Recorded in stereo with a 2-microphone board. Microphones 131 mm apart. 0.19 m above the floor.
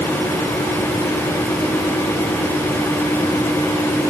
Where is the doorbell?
I don't hear a doorbell.